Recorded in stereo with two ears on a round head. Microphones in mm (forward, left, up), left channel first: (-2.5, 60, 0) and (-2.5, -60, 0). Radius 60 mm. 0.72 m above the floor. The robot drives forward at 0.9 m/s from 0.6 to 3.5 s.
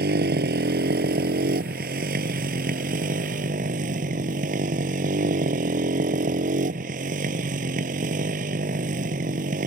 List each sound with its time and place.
0.0 s a motorcycle: 85° right; by 9.7 s 65° right (ahead or behind)